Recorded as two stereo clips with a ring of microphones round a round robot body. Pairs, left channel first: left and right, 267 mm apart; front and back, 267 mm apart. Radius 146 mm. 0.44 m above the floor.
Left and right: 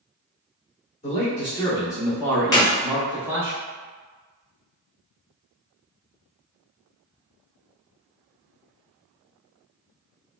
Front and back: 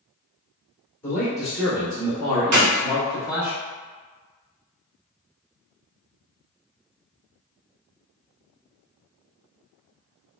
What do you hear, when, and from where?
1.0 s a man speaking: 75° left, 1.3 m; by 3.5 s 165° right, 1.5 m
2.5 s a clap: 165° left, 1.9 m